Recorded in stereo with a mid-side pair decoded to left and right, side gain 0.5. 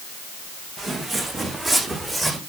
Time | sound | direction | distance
0.8 | footsteps | 30° right | 6 m